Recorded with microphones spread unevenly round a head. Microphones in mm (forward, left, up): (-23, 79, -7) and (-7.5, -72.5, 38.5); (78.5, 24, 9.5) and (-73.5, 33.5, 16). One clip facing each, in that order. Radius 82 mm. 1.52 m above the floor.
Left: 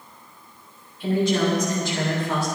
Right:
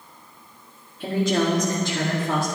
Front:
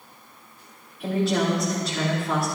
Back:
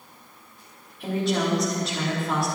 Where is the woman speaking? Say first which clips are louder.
Left 1 dB, front 2 dB; 95° right, 4.5 m.